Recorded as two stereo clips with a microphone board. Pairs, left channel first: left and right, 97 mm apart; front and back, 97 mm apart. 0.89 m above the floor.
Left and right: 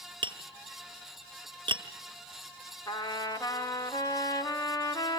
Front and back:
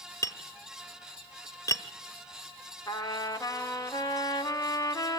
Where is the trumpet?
45° left, 0.8 m.